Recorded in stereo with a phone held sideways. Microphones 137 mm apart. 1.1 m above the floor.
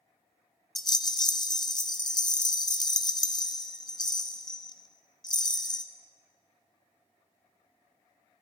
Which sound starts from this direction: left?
A rattle, at 0.8 s.